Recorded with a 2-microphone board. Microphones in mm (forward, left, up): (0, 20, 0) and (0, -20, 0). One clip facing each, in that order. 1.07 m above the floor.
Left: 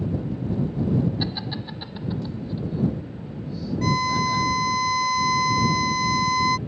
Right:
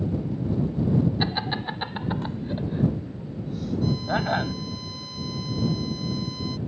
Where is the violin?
75° left (ahead or behind).